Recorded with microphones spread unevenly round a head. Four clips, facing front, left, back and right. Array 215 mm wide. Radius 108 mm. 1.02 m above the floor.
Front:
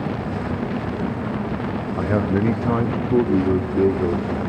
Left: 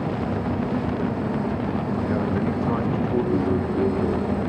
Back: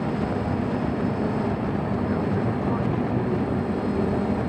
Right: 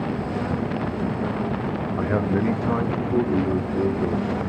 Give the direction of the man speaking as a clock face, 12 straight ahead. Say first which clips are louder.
Right 4 dB, front 8 dB; 1 o'clock.